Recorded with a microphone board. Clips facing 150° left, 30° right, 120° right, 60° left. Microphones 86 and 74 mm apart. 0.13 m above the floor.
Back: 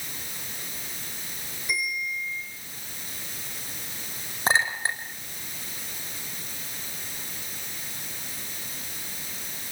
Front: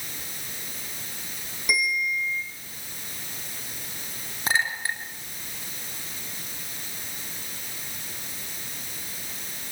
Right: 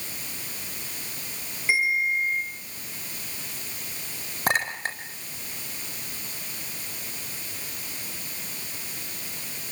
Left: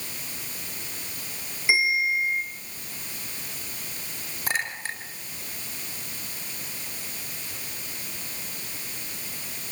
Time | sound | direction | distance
1.7 | a bell | 20° right | 7 m
4.5 | a clink | 150° right | 4.5 m